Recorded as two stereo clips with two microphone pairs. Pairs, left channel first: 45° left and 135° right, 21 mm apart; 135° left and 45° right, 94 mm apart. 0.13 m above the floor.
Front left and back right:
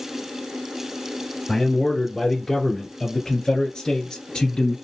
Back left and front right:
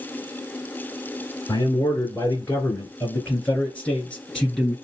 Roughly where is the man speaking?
Left.